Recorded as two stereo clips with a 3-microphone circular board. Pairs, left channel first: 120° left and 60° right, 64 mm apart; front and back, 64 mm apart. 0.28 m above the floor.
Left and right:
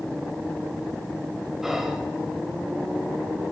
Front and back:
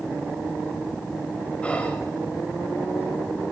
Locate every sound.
1.6 s whispering: 15° left, 1.3 m